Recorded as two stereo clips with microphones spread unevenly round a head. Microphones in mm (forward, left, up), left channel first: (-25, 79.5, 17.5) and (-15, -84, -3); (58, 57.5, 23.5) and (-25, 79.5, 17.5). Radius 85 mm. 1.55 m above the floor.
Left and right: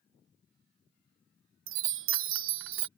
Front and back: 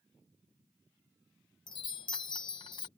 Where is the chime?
75° right.